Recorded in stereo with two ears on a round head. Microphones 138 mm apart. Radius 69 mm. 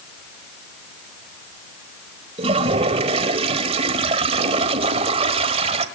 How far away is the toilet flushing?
About 1.6 m.